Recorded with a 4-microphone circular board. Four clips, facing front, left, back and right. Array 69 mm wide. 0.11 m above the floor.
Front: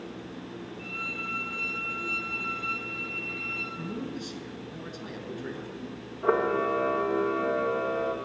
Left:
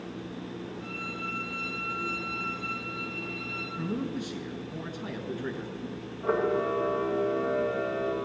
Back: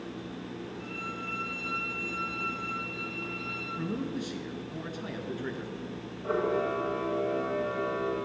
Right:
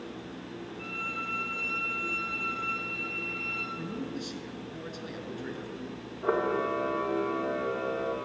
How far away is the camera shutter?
About 2.5 m.